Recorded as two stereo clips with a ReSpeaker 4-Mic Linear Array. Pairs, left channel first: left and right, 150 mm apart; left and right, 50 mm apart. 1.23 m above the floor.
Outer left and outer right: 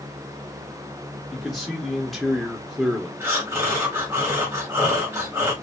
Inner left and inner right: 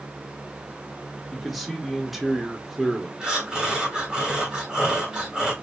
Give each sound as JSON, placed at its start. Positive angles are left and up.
{"t": 1.3, "sound": "a man speaking", "side_deg": 0, "distance_m": 0.6}
{"t": 3.2, "sound": "breathing", "side_deg": -15, "distance_m": 1.3}